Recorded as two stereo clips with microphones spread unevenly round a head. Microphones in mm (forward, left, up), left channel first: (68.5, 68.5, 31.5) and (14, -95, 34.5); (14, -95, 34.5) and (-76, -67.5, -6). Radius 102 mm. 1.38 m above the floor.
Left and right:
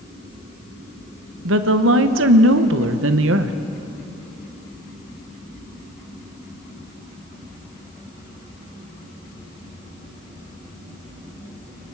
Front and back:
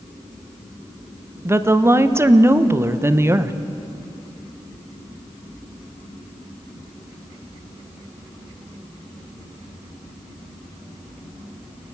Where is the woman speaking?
130° right, 1.1 m.